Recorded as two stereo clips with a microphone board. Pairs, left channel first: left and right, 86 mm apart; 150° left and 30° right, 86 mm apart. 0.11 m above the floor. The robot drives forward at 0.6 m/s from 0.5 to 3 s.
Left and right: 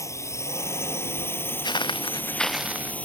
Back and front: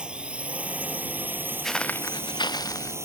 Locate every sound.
0.0 s a drone: 45° left; by 3.1 s 20° left
1.6 s footsteps: 65° left; by 3.0 s 160° right